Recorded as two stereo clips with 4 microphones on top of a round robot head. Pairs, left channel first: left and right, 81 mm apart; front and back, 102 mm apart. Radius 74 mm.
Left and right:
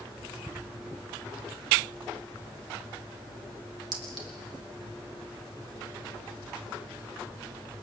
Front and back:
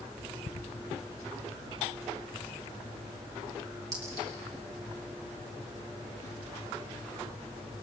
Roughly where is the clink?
Behind right.